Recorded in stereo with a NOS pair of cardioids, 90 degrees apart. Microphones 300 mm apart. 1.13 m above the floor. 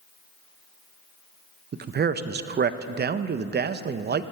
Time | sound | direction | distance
1.7 | a man speaking | 35° right | 0.6 m